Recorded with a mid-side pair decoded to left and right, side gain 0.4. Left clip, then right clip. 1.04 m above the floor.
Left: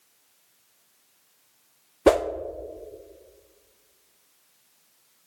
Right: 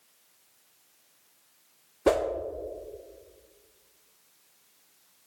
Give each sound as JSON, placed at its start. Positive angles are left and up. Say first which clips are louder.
{"t": 2.1, "sound": "a whoosh", "louder": "left 5 dB", "azimuth_deg": 45, "distance_m": 0.5}